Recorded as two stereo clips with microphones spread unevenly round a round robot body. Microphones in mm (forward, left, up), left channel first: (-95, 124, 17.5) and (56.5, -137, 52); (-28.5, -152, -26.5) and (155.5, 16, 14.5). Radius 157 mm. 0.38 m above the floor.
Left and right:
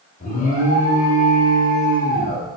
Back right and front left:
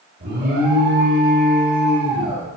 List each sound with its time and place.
0.2 s an alarm: 85° left, 1.0 m